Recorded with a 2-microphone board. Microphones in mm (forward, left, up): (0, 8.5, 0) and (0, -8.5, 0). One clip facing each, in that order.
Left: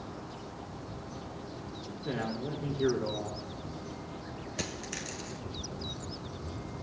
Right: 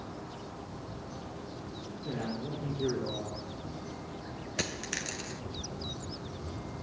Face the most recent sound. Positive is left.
turn(degrees=-35)  # may be behind; listen again after turning